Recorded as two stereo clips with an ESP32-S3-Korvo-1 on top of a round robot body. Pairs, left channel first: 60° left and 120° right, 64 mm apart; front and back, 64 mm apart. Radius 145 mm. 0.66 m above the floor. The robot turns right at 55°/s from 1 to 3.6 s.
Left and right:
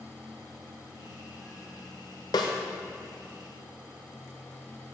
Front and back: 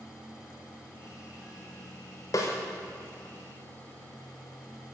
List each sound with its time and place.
2.3 s a snare drum: 40° left, 0.7 m; by 2.5 s 55° left, 0.7 m